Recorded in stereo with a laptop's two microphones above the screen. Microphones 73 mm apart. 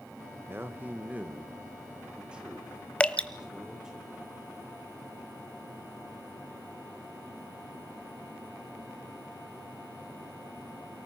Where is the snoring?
No snoring in this recording.